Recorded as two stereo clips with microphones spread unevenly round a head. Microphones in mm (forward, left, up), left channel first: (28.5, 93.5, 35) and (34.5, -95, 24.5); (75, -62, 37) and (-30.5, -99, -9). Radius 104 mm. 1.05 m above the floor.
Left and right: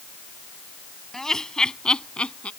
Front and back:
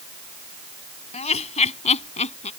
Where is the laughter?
5° left; by 2.5 s 10° left.